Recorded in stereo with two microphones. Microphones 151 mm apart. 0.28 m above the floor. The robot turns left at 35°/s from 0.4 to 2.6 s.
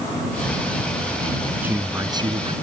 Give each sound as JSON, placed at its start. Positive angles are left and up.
{"t": 1.6, "sound": "a man speaking", "azimuth_deg": -10}